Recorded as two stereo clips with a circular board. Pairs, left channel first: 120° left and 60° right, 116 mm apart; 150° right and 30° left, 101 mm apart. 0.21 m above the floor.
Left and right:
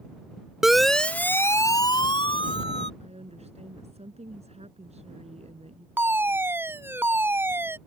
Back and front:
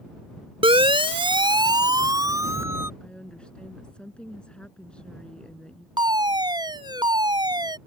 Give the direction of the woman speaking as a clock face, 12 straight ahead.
2 o'clock.